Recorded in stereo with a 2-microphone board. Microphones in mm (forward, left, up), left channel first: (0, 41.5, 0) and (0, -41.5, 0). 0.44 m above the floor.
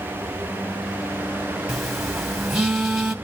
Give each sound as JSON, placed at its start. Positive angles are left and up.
{"t": 1.7, "sound": "a phone buzzing", "side_deg": 0, "distance_m": 1.6}